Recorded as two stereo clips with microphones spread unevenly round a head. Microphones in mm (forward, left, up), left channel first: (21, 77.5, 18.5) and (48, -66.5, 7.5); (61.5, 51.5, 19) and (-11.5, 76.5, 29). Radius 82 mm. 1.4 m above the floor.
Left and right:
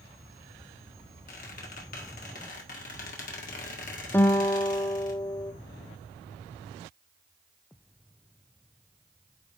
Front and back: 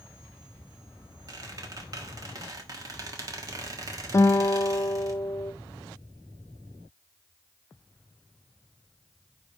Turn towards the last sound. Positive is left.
turn(degrees=25)